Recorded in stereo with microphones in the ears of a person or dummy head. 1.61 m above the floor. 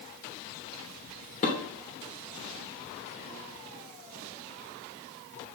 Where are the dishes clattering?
40° left (ahead or behind), 3 m.